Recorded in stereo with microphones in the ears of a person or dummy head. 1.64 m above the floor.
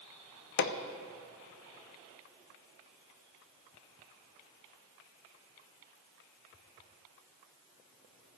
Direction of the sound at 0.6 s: 55° left (ahead or behind).